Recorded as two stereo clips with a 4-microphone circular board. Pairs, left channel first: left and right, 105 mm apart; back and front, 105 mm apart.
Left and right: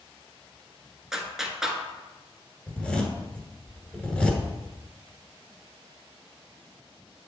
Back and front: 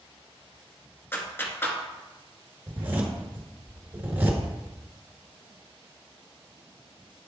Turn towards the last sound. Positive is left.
turn(degrees=35)